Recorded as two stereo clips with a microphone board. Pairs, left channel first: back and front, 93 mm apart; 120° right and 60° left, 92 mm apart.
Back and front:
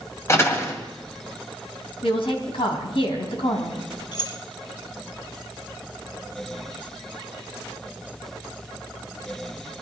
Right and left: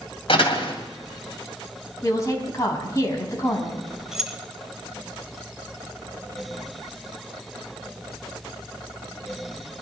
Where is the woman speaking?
175° right, 3.5 m.